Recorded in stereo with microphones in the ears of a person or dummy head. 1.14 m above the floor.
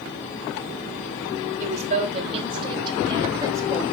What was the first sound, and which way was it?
A woman speaking, 40° right (ahead or behind).